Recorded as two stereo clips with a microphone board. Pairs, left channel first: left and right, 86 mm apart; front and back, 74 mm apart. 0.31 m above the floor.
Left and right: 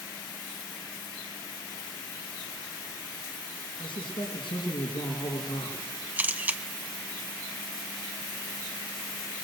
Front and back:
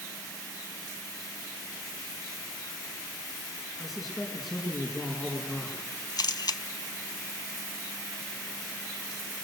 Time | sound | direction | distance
3.8 | a man speaking | 95° left | 4 m
6.2 | a camera shutter | 20° right | 0.8 m